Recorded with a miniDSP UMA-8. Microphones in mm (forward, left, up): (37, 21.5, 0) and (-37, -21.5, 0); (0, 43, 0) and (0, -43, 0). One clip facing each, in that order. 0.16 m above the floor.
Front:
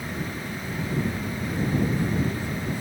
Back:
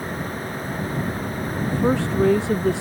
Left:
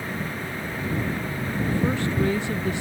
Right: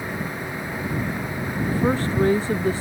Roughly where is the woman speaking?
Behind right.